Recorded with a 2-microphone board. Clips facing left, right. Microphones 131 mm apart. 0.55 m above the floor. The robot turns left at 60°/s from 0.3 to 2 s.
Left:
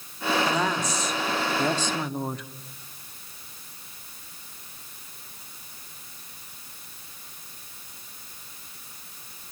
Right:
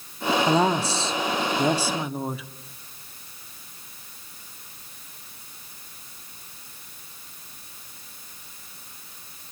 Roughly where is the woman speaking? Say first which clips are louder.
Right 5 dB; right.